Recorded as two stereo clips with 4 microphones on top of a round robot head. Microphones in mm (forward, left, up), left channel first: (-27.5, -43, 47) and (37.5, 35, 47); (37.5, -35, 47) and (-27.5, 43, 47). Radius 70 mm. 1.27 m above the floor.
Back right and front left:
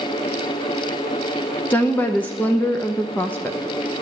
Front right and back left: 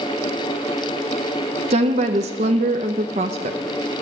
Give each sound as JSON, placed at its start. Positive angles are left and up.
{"t": 1.7, "sound": "a woman speaking", "azimuth_deg": 155, "distance_m": 0.8}